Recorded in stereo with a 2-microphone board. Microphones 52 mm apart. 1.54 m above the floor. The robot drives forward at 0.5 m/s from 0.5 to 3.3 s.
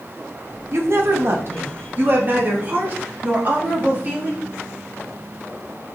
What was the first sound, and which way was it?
A woman speaking, 60° right (ahead or behind).